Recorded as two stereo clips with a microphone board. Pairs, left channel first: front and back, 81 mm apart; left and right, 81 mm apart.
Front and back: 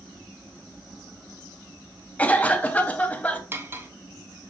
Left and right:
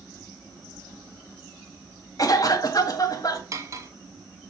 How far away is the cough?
About 0.8 m.